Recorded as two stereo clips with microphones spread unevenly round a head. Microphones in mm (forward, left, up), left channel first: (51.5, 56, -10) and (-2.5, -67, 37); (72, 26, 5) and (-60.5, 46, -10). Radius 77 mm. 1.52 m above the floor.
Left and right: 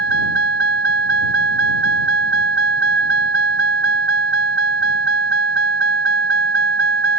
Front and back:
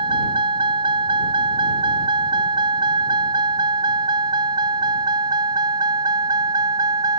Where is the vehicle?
125° right; by 7.2 s 120° right.